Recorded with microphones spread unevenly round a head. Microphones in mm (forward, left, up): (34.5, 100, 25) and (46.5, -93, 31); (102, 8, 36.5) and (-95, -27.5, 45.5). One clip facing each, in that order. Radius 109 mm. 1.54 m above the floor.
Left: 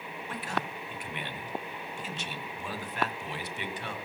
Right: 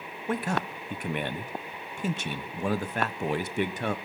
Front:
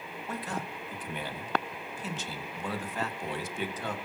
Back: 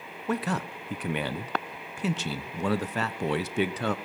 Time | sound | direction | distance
0.3 | a man speaking | 140° right | 1.1 m